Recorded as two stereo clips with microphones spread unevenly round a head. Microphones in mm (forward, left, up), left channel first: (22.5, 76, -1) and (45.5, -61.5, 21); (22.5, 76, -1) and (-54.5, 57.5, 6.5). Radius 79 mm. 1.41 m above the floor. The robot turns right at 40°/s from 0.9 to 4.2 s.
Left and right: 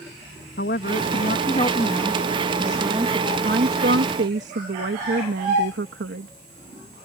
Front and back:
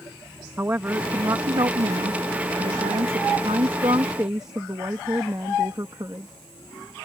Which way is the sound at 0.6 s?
130° left.